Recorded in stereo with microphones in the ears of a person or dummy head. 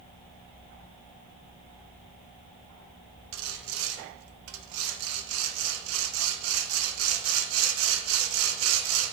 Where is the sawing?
80° right, 1.0 m.